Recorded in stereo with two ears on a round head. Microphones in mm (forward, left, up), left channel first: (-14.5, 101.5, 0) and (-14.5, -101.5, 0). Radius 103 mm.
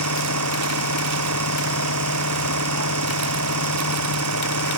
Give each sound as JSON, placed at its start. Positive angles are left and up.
{"t": 0.0, "sound": "an engine running", "side_deg": -70}